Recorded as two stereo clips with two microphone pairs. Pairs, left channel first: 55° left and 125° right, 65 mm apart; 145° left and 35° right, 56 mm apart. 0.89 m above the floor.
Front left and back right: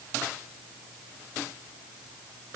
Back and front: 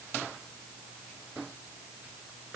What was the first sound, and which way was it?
Only background noise.